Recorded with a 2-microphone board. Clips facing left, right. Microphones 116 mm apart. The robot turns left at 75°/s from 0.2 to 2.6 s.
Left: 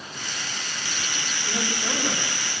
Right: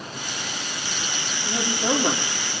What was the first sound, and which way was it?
A woman speaking, 15° right.